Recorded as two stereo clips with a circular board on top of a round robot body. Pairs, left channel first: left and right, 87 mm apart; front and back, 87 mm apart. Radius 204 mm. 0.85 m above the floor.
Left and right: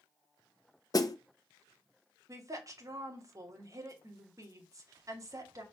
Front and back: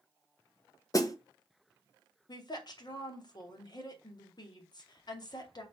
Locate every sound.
0.9 s a snare drum: 50° left, 1.1 m
2.3 s a woman speaking: 40° right, 2.5 m